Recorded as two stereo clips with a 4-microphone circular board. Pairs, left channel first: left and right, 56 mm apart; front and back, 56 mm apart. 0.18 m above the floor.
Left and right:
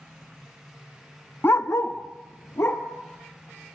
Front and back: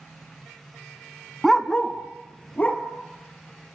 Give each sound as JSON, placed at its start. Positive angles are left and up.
{"t": 1.4, "sound": "a dog barking", "azimuth_deg": 85, "distance_m": 0.6}